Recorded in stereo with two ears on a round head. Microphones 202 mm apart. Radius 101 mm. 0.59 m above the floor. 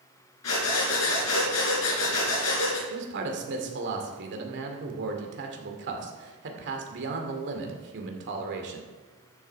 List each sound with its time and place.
0.4 s breathing: 85° left, 3 m
2.9 s a man speaking: 55° right (ahead or behind), 2 m